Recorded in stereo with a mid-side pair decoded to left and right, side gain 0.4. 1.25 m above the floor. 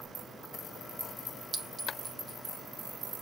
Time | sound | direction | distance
1.5 | a clink | 40° right | 1.0 m